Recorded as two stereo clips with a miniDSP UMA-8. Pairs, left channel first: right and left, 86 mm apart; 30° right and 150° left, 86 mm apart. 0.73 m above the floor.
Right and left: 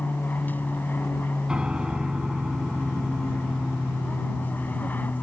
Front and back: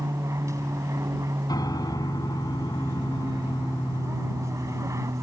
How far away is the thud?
No thud in this recording.